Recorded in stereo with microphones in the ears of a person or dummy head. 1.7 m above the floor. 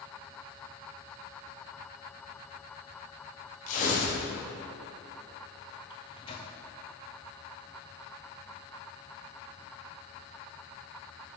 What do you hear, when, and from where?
3.7 s tearing paper: 45° left (ahead or behind), 2.0 m
5.9 s a microwave: 25° left (ahead or behind), 0.6 m